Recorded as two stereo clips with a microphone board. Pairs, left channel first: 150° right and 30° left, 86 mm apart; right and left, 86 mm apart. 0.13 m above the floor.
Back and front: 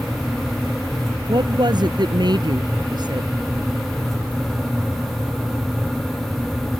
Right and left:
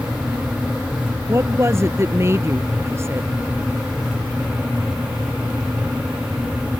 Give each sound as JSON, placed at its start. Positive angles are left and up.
{"t": 1.3, "sound": "a woman speaking", "azimuth_deg": 40}